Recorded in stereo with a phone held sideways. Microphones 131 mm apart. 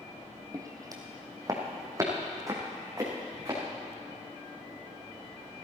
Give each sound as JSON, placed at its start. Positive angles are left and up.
{"t": 0.5, "sound": "footsteps", "side_deg": -25, "distance_m": 1.9}